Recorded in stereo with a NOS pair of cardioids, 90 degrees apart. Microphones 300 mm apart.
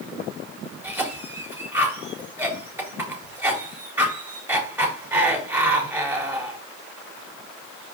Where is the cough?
5° right, 4.5 m.